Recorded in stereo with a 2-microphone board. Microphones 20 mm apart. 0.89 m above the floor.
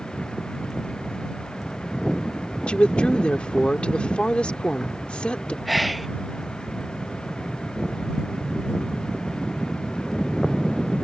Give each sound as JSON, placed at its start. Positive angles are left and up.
{"t": 2.7, "sound": "a woman speaking", "side_deg": 75}
{"t": 5.7, "sound": "whispering", "side_deg": -5}